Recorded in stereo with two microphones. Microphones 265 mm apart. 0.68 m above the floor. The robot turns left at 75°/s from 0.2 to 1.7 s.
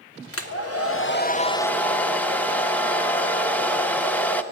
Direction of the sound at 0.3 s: 110° left.